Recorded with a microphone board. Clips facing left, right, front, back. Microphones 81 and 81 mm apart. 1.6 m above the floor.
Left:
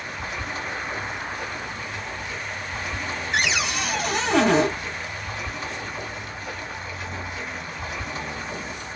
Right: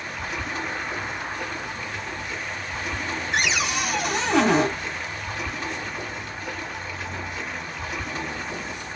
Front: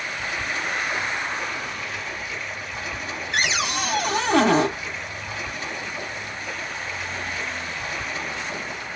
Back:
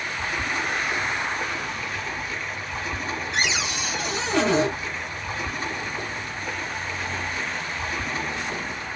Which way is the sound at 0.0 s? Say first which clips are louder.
Right 1 dB, back 1 dB; 135° right.